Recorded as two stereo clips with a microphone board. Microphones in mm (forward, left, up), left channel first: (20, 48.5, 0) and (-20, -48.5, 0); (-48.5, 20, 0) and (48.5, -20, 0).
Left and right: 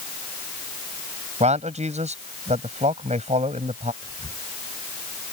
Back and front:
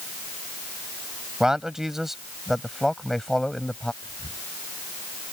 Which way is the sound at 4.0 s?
115° left.